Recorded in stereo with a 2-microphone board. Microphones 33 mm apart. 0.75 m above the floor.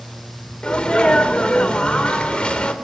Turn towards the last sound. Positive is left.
turn(degrees=30)  # may be behind; listen again after turning